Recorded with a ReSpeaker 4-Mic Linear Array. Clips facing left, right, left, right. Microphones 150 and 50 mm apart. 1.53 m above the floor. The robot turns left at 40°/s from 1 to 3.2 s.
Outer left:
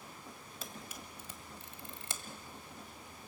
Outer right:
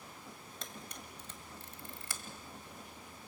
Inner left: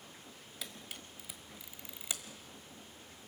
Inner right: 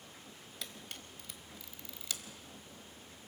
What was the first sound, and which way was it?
A camera shutter, 5° left (ahead or behind).